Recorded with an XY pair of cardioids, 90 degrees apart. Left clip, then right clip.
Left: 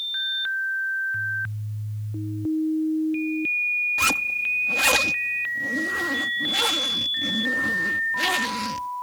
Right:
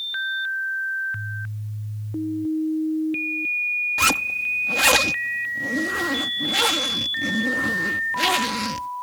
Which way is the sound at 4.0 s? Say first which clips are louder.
Right 1 dB; 30° right.